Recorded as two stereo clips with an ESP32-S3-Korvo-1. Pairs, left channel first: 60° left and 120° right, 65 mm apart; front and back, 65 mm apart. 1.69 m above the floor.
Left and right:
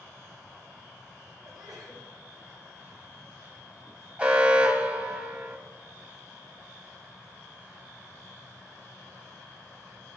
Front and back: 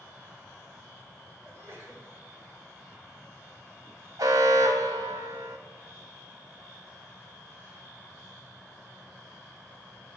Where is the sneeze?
125° right, 8.5 m.